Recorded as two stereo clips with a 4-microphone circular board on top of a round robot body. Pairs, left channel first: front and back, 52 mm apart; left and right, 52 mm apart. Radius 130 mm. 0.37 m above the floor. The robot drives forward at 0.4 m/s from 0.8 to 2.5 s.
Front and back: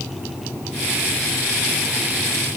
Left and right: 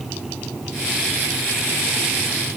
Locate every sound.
Only background noise.